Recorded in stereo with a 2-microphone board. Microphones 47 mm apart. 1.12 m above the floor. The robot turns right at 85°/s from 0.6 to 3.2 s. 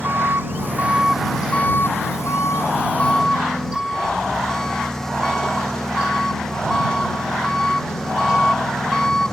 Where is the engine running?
55° right; by 9.3 s 170° left.